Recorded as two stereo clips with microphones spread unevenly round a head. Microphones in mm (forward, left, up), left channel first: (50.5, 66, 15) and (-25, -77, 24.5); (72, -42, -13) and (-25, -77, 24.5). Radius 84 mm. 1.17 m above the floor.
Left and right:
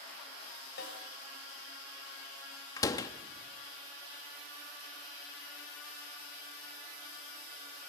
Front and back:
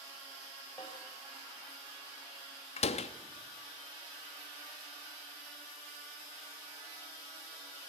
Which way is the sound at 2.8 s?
10° right.